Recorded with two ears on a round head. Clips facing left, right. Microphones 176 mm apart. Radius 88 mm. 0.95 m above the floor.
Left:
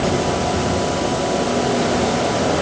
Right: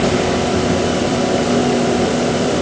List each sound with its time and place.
Only background noise.